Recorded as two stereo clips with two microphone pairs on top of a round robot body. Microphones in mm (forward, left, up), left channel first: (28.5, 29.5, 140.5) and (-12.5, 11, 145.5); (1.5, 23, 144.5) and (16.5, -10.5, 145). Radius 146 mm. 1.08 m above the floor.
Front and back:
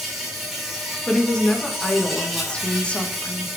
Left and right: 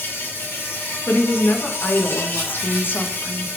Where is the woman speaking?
90° left, 1.6 m.